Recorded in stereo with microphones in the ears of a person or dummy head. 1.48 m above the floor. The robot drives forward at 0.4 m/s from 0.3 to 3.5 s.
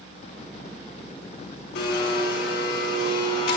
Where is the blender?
65° left (ahead or behind), 5 m; by 3.6 s 60° left (ahead or behind), 5 m.